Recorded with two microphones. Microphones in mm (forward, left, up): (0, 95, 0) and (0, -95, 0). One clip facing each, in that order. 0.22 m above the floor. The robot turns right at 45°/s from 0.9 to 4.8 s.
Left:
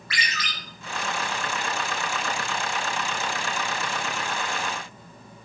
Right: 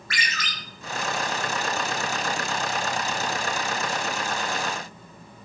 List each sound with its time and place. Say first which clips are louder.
0.1 s a ringtone: even; 45° right (ahead or behind), 0.6 m